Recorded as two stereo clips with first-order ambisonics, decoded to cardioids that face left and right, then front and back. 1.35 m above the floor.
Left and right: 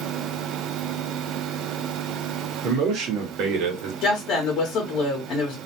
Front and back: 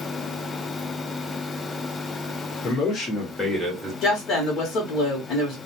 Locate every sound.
2.6 s a man speaking: 45° right, 1.1 m; by 3.9 s 100° right, 1.0 m
4.0 s a woman speaking: 45° left, 0.8 m